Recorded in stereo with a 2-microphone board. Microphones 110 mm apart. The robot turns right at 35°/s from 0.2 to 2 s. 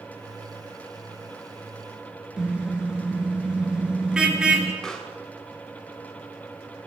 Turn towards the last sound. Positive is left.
turn(degrees=5)  # may be behind; listen again after turning